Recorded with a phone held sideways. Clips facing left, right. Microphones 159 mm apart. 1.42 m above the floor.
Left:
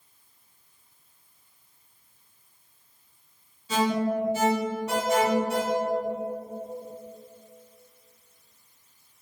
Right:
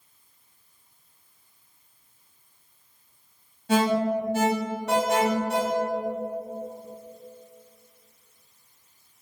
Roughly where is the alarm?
Right.